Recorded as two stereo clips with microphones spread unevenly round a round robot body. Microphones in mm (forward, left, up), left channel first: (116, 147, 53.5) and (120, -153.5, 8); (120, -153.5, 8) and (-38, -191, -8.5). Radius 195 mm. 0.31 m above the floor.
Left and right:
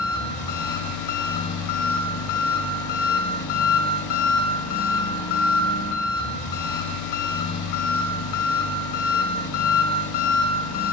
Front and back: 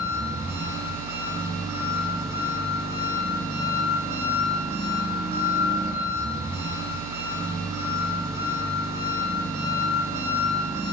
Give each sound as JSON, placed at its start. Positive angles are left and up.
{"t": 0.0, "sound": "an engine running", "azimuth_deg": 120, "distance_m": 0.9}